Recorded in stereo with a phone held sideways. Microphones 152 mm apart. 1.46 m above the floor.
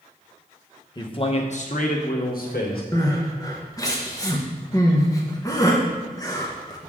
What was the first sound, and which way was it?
A man speaking, 30° left (ahead or behind).